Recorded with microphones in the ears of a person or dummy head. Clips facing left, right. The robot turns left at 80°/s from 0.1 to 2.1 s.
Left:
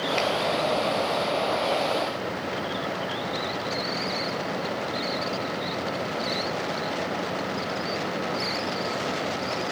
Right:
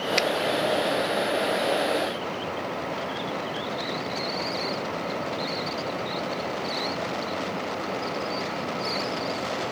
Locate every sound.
0.2 s a finger snap: 70° right (ahead or behind), 1.3 m; by 0.3 s 75° right (ahead or behind), 1.3 m